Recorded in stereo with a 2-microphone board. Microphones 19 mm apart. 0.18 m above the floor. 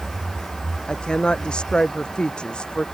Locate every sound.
0.9 s a woman speaking: 60° left (ahead or behind)